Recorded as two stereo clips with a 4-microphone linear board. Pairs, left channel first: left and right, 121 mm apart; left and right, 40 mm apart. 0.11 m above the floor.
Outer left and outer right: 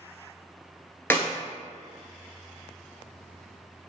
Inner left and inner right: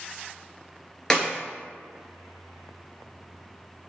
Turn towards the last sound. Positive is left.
turn(degrees=15)  # may be behind; listen again after turning